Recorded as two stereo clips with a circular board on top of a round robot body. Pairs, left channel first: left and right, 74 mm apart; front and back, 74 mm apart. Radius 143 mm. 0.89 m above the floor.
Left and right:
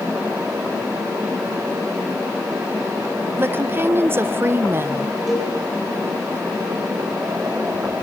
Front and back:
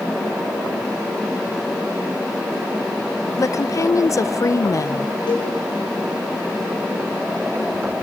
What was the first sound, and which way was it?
A woman speaking, 35° right.